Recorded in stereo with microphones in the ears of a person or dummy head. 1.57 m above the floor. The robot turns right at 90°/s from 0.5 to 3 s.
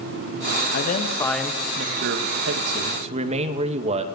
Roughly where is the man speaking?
Behind left.